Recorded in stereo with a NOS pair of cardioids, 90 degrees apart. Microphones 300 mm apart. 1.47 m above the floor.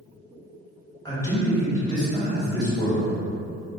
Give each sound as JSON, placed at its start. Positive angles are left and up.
{"t": 1.1, "sound": "a man speaking", "azimuth_deg": 10, "distance_m": 1.4}